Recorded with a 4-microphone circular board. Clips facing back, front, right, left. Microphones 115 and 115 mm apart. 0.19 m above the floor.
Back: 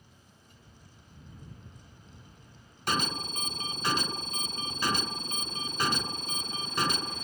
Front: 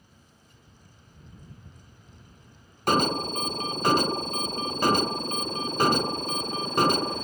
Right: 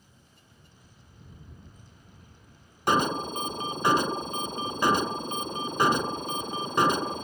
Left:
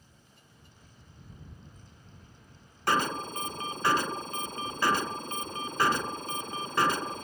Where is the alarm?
25° right.